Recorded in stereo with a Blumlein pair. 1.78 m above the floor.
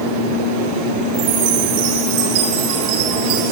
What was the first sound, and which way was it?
A chime, 45° right.